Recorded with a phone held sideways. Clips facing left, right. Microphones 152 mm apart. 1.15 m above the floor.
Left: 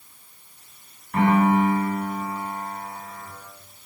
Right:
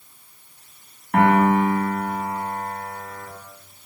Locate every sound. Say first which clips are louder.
1.1 s a piano: right 2 dB; 85° right, 8.5 m